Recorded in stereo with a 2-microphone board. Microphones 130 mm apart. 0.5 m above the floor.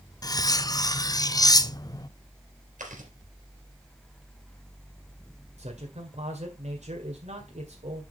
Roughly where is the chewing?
Right.